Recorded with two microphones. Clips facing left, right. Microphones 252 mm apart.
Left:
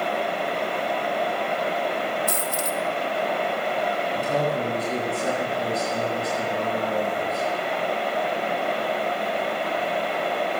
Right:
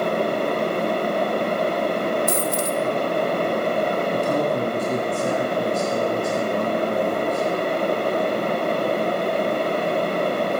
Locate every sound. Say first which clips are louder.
2.3 s a dropped coin: right 5 dB; 35° right (ahead or behind), 1.1 m
4.1 s a man speaking: right 1 dB; 50° right (ahead or behind), 3 m